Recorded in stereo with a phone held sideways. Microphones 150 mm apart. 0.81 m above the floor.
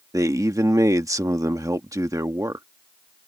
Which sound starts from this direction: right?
A man speaking, at 0.1 s.